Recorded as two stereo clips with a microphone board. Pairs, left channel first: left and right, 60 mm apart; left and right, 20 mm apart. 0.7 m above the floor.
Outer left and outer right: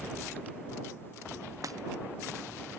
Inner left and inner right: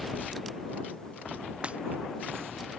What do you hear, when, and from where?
1.6 s breaking glass: 85° right